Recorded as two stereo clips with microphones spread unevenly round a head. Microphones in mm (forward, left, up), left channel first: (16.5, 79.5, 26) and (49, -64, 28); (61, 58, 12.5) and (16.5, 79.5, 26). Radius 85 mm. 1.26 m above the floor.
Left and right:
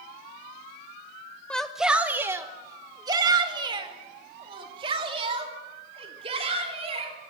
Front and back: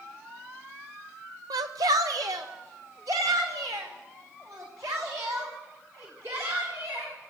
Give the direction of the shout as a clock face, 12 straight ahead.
6 o'clock.